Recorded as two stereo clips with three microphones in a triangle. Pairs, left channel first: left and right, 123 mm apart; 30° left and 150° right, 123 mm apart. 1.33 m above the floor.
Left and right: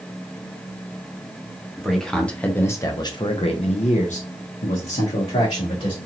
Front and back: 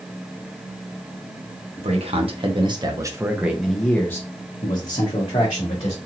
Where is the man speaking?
Straight behind, 1.2 m; by 6.0 s 65° left, 1.5 m.